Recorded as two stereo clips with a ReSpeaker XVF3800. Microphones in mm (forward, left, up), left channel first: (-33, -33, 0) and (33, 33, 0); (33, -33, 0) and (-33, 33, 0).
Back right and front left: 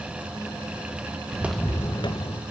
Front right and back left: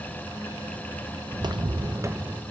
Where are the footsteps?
95° left, 0.6 m; by 2.4 s 155° right, 1.5 m.